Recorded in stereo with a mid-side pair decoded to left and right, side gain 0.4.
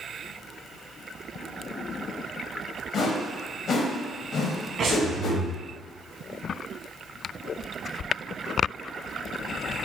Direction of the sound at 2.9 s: 60° left.